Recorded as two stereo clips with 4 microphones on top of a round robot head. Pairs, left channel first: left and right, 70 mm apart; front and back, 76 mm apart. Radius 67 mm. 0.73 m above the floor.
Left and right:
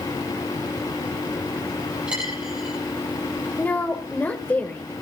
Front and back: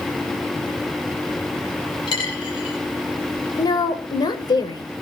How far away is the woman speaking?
About 3 m.